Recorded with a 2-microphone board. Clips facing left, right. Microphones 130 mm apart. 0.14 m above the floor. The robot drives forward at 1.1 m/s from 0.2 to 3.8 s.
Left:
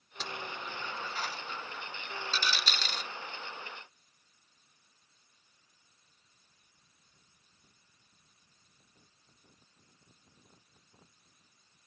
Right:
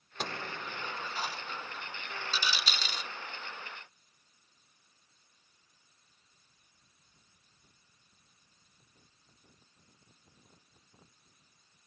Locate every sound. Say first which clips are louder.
0.2 s a dropped coin: right 2 dB; 55° right (ahead or behind); by 3.1 s 10° right (ahead or behind)